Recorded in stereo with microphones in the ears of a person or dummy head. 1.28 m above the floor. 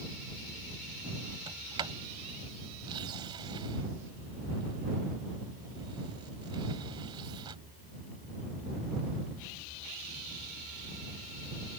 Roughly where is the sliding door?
Right.